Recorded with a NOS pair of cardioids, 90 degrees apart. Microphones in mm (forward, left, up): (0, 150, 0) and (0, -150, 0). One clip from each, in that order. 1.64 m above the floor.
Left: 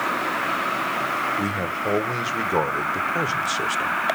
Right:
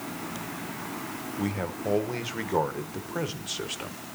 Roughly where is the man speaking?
Ahead.